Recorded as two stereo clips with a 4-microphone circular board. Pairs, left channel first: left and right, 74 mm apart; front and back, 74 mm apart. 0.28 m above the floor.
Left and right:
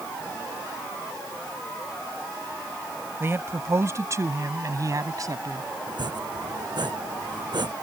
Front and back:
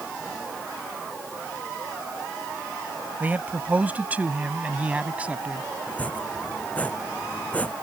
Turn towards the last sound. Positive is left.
turn(degrees=-70)